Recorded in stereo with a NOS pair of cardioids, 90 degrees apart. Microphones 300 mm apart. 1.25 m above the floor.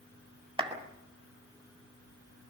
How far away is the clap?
About 5.5 m.